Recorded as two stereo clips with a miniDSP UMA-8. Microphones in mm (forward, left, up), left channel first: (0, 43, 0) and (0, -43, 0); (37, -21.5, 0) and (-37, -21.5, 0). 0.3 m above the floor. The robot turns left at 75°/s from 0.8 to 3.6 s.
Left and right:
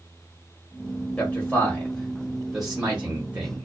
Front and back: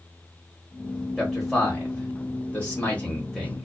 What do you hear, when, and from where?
1.2 s a man speaking: 90° left, 1.1 m; by 3.6 s 95° right, 1.1 m